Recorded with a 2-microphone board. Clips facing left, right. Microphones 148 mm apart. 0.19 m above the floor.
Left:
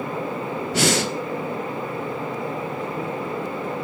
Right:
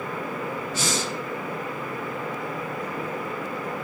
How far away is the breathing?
About 0.8 m.